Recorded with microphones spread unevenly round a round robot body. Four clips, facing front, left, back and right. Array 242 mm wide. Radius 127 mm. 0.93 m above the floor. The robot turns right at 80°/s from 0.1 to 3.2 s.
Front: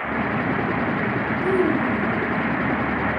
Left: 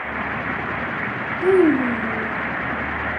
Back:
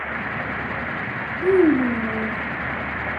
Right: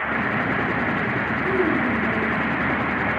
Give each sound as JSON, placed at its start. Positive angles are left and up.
{"t": 1.4, "sound": "a child speaking", "azimuth_deg": 120, "distance_m": 1.6}